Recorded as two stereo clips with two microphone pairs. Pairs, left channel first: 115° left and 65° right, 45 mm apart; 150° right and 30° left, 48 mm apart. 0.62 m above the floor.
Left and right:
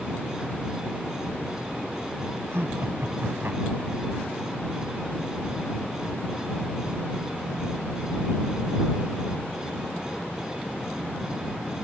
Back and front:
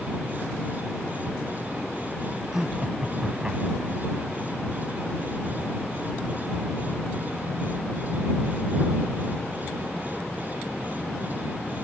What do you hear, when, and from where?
2.5 s laughter: 50° right; by 4.0 s 40° right